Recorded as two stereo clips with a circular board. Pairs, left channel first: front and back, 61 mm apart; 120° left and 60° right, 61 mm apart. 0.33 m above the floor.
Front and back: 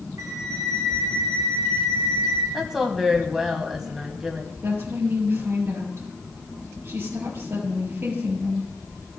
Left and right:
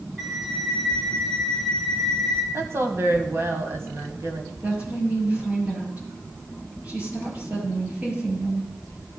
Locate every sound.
0.2 s a flute: 160° right, 2 m
2.5 s a woman speaking: 95° right, 1.8 m
4.6 s a woman speaking: 125° right, 5.5 m